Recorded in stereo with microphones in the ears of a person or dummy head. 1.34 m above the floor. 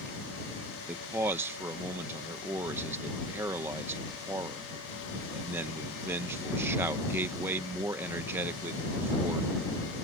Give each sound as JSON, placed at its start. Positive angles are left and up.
{"t": 0.9, "sound": "a man speaking", "side_deg": -10}